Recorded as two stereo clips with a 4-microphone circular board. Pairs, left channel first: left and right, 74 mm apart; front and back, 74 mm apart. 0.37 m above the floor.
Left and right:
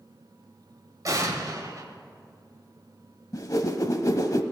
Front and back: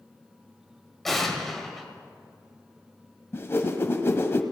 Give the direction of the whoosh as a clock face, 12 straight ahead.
10 o'clock.